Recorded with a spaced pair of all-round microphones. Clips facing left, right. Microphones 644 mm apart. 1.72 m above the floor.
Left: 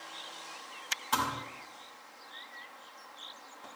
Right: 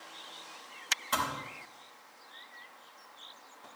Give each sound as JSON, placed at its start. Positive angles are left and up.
{"t": 1.1, "sound": "a thud", "side_deg": -15, "distance_m": 3.5}